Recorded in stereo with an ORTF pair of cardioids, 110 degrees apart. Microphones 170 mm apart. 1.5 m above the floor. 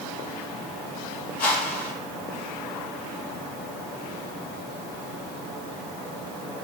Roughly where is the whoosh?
Left.